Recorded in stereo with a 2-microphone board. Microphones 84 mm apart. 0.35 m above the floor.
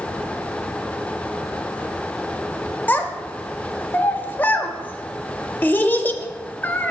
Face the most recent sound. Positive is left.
turn(degrees=20)  # may be behind; listen again after turning